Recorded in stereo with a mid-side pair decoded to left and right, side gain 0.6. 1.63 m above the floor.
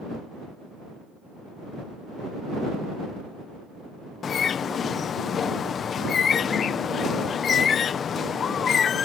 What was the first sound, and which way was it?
A bird, 40° left.